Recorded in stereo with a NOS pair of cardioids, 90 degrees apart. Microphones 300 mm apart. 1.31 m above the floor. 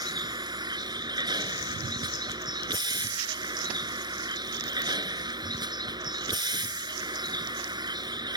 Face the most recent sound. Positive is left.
turn(degrees=-15)